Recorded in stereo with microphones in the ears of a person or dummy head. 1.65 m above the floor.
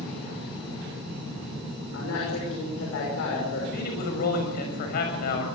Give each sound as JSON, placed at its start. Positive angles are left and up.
{"t": 1.9, "sound": "a woman speaking", "side_deg": 75, "distance_m": 6.5}
{"t": 3.7, "sound": "a man speaking", "side_deg": 55, "distance_m": 7.0}